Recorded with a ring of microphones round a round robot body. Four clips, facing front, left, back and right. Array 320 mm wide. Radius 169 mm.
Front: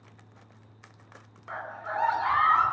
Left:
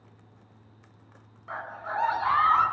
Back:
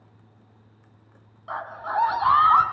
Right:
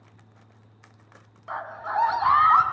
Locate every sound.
1.5 s a scream: 150° right, 8.5 m; by 2.6 s 145° right, 8.5 m